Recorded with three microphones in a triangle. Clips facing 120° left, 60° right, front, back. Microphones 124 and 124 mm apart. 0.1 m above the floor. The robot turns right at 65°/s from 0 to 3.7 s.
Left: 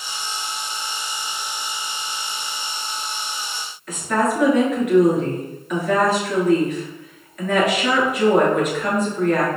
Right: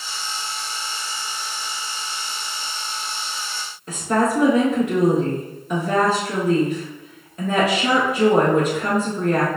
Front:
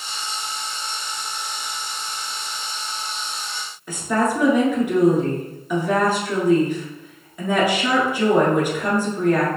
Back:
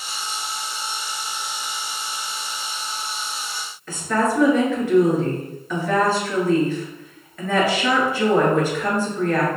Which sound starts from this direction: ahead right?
A woman speaking, at 3.9 s.